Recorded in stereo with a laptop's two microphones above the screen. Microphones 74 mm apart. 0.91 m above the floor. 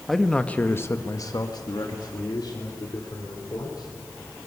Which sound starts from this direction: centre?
A man speaking, at 0.1 s.